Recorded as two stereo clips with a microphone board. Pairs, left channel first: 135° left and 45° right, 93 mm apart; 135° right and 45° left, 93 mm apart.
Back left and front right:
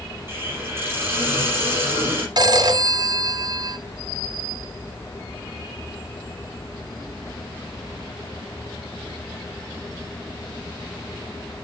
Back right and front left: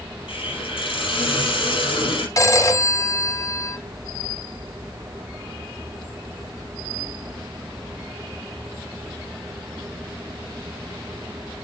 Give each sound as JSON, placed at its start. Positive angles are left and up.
{"t": 0.3, "sound": "a hiss", "azimuth_deg": -110, "distance_m": 5.5}
{"t": 2.4, "sound": "a phone ringing", "azimuth_deg": -85, "distance_m": 1.3}